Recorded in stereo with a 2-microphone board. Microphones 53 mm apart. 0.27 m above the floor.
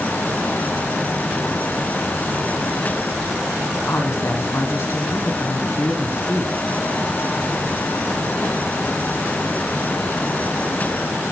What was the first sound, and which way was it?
A woman speaking, 55° left (ahead or behind).